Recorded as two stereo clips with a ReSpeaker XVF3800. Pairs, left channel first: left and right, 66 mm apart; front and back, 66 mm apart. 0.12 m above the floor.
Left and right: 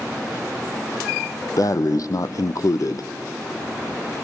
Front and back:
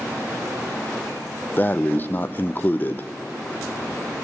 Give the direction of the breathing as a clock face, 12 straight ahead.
10 o'clock.